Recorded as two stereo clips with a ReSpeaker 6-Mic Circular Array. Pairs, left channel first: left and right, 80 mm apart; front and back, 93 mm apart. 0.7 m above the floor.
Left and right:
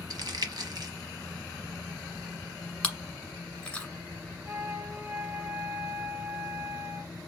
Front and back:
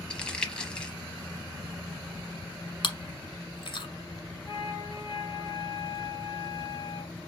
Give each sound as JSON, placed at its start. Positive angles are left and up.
{"t": 0.1, "sound": "crumpling", "azimuth_deg": -80, "distance_m": 0.9}
{"t": 2.8, "sound": "chewing", "azimuth_deg": 15, "distance_m": 1.4}
{"t": 4.5, "sound": "a flute", "azimuth_deg": -40, "distance_m": 2.5}